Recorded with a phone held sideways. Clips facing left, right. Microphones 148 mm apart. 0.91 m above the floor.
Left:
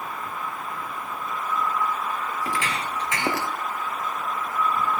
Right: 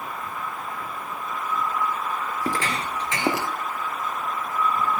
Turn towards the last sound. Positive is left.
turn(degrees=-15)  # may be behind; listen again after turning